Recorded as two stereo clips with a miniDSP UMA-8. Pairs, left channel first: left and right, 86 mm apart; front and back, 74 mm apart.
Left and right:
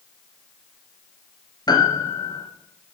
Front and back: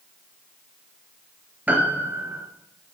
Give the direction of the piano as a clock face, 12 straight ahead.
8 o'clock.